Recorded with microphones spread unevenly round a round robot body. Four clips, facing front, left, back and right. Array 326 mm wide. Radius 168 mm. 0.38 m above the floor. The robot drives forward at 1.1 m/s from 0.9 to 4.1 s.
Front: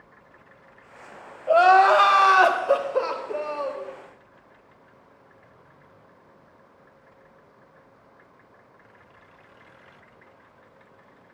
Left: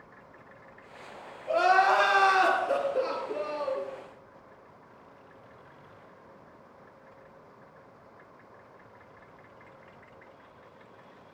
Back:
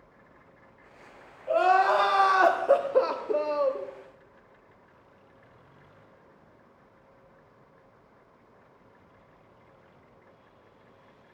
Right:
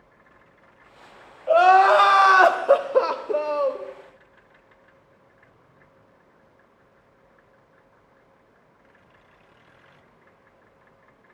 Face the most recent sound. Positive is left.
turn(degrees=-130)